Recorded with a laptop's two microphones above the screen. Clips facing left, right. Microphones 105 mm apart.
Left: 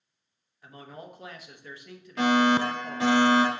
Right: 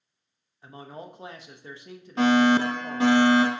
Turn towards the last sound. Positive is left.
turn(degrees=-30)  # may be behind; listen again after turning